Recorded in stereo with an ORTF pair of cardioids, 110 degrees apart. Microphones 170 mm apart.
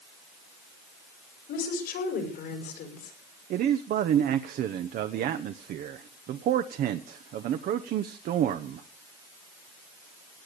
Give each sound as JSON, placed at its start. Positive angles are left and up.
{"t": 1.5, "sound": "a woman speaking", "azimuth_deg": 65, "distance_m": 6.5}
{"t": 3.5, "sound": "a man speaking", "azimuth_deg": -60, "distance_m": 1.0}